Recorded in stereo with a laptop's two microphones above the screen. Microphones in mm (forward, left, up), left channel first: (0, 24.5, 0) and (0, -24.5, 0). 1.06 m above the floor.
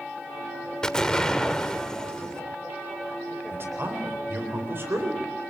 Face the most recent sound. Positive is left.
turn(degrees=-50)  # may be behind; listen again after turning